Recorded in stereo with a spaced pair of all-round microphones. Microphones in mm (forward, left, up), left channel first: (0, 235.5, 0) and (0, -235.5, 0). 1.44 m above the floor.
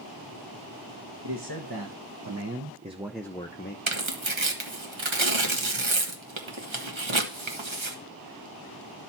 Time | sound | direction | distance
1.2 | a man speaking | 60° right (ahead or behind) | 1.5 m
3.9 | tearing paper | 75° right (ahead or behind) | 1.2 m